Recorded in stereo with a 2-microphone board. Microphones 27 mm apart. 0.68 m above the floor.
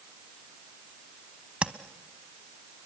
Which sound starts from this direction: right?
Tapping, at 1.6 s.